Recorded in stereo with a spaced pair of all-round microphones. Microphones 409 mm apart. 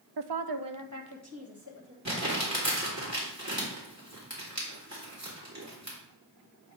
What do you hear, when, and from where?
0.2 s a woman speaking: 65° right (ahead or behind), 0.5 m; by 1.9 s 30° right (ahead or behind), 2.5 m
2.0 s crumpling: 40° right (ahead or behind), 2.5 m